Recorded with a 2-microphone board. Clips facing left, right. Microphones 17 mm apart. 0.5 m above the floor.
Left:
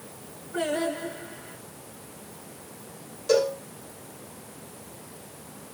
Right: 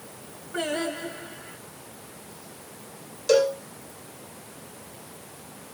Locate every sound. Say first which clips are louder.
0.5 s singing: left 1 dB; 35° right (ahead or behind), 2 m
3.3 s a cowbell: right 2 dB; 45° right (ahead or behind), 2.0 m